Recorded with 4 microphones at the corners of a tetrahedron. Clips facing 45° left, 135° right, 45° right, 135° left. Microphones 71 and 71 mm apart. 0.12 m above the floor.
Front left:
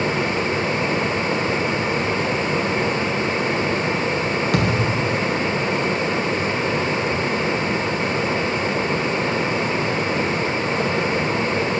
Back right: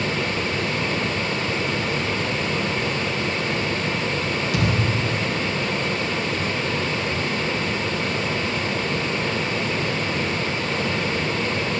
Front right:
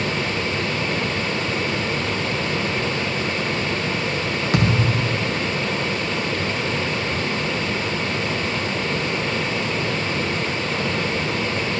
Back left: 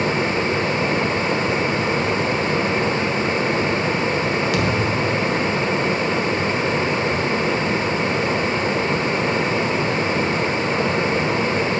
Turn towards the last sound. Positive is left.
turn(degrees=10)